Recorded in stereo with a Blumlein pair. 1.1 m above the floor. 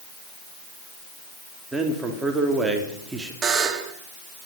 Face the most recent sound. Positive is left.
turn(degrees=-20)